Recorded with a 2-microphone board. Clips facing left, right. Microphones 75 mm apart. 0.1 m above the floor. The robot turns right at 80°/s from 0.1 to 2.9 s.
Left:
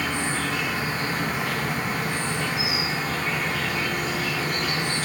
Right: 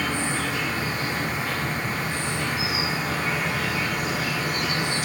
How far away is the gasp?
I don't hear a gasp.